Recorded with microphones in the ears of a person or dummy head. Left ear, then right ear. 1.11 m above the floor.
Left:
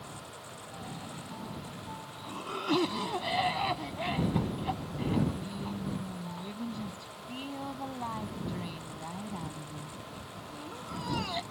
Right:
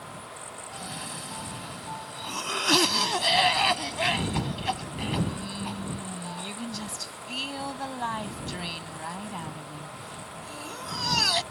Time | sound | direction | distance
0.7 | a cough | 65° right (ahead or behind) | ?